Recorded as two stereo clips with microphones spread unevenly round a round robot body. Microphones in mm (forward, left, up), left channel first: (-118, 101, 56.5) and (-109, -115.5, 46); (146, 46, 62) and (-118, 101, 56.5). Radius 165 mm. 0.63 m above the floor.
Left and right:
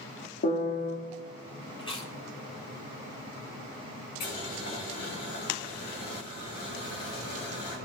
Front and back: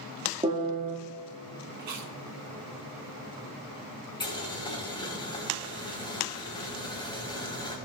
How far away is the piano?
About 1.6 m.